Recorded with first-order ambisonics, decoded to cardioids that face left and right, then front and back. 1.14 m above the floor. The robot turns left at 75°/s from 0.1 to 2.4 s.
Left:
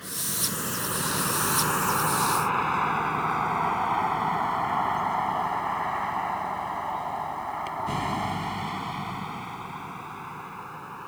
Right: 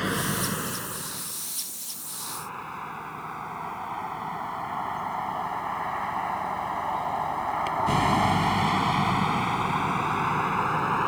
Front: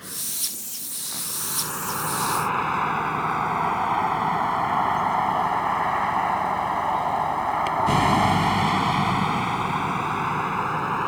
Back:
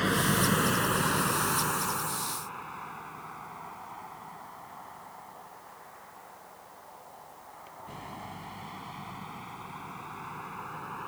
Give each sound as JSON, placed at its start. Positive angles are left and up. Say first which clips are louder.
{"t": 0.0, "sound": "a vehicle", "louder": "right 4 dB, back 6 dB", "azimuth_deg": -135}